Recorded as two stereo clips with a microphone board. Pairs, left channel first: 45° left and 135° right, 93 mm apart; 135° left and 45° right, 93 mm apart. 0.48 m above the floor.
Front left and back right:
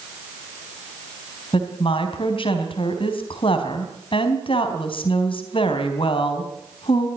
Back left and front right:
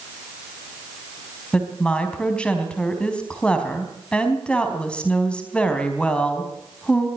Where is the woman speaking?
55° left, 4 m.